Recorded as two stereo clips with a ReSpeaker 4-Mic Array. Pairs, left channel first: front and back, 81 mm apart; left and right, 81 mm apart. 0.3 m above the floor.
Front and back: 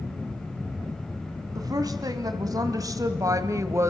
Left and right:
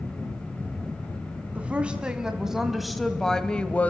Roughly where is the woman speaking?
Behind.